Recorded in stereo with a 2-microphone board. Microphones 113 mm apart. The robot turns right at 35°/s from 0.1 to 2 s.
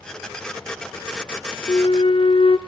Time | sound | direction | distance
1.7 | a flute | 55° left (ahead or behind) | 0.6 m